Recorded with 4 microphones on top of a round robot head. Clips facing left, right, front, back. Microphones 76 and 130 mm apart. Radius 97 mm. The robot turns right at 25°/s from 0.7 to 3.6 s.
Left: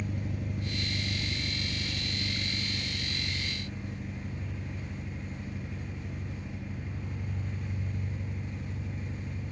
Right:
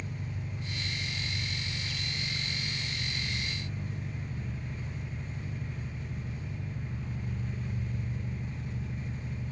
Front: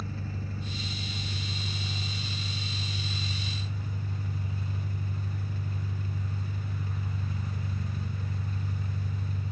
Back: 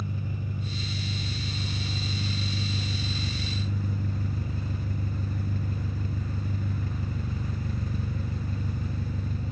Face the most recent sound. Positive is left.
turn(degrees=180)